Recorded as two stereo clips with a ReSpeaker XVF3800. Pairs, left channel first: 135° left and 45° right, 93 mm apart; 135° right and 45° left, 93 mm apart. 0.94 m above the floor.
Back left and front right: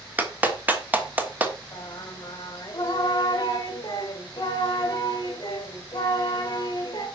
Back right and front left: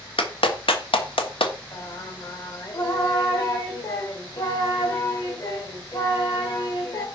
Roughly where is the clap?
Behind right.